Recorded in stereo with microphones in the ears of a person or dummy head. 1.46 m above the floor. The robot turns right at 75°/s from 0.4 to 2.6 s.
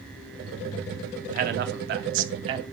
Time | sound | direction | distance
1.3 | a man speaking | 130° right | 0.6 m